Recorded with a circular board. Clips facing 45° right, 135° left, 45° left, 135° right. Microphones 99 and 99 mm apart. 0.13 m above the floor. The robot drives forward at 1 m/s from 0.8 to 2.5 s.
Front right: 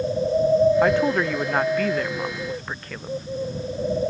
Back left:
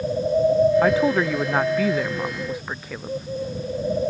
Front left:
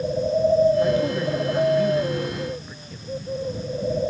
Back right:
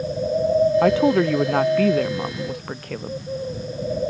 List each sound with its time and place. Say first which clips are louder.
0.8 s a woman speaking: back left 1 dB, back right 5 dB; 135° right; by 3.3 s 140° right